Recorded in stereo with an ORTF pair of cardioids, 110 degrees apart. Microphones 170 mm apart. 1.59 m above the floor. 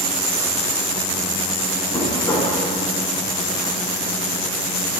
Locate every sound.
1.9 s knocking: 25° left, 4 m